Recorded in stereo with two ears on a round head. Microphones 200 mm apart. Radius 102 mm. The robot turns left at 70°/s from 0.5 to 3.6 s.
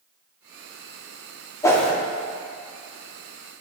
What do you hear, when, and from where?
1.6 s a whoosh: 15° left (ahead or behind), 0.6 m; by 1.9 s centre (ahead or behind), 0.6 m